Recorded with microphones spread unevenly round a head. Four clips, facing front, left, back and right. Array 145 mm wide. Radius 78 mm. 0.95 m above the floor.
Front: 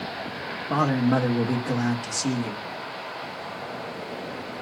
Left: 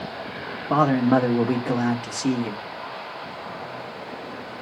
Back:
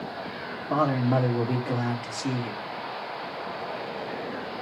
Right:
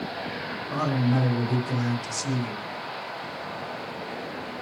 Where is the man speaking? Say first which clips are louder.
Left 7 dB, front 2 dB; 80° left, 1.8 m.